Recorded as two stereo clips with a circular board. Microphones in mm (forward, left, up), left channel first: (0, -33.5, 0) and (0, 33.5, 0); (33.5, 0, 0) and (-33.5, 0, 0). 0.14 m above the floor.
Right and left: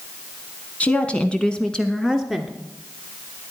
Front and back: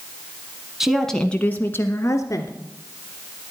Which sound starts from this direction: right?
A woman speaking, at 0.8 s.